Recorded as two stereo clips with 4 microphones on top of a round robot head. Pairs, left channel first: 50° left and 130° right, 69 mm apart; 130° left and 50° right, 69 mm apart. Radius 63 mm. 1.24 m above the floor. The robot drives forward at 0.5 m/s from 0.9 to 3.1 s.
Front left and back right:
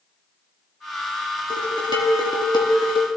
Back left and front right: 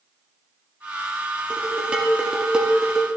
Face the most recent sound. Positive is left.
turn(degrees=40)